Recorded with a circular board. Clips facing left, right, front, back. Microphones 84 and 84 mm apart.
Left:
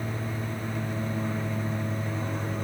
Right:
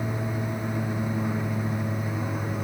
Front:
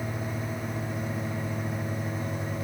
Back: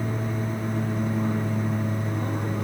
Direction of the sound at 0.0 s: 160° right.